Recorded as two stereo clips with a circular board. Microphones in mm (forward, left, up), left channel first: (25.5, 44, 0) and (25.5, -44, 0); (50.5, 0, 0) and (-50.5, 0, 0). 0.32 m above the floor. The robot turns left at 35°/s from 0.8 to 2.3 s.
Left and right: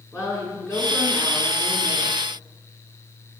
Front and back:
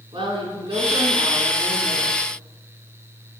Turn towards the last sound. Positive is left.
turn(degrees=95)